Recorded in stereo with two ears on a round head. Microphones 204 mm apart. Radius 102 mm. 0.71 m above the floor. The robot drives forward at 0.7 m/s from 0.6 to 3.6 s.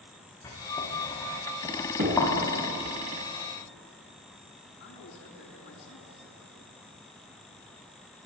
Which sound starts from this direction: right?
Knocking, at 2.0 s.